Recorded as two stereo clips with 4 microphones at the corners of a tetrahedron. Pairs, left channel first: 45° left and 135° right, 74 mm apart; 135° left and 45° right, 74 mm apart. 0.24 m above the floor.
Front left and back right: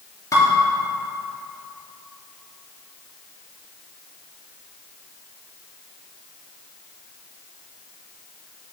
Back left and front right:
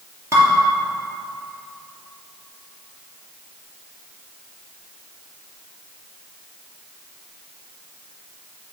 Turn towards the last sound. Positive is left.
turn(degrees=5)